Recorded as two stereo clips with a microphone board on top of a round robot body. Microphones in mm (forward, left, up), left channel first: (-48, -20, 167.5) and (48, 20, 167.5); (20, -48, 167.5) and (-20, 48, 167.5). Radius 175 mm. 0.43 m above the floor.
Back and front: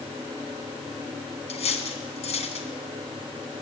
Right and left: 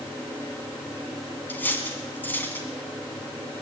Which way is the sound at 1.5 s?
140° right.